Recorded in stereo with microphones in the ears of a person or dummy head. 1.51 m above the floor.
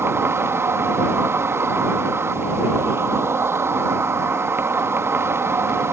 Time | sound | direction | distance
0.0 | an insect | 10° right (ahead or behind) | ?